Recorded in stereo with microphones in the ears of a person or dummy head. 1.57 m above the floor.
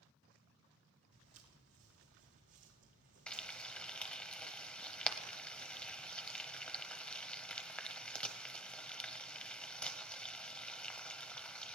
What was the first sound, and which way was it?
Footsteps, 60° right (ahead or behind).